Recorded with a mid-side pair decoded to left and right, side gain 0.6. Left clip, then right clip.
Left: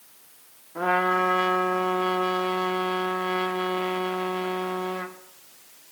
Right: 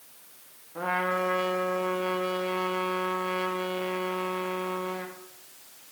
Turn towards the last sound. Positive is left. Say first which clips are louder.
# left 5 dB
turn(degrees=20)